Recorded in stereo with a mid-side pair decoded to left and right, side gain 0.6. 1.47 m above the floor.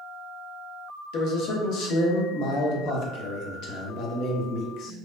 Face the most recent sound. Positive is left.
turn(degrees=65)